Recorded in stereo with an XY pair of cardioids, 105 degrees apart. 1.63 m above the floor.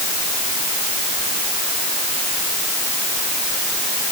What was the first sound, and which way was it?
Only background noise.